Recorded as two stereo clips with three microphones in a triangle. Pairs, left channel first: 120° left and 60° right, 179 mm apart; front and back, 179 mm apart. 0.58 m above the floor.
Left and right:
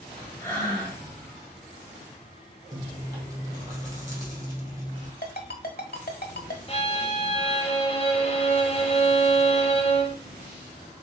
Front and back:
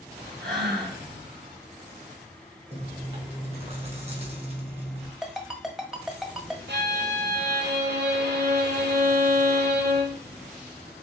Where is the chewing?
130° right, 2.5 m.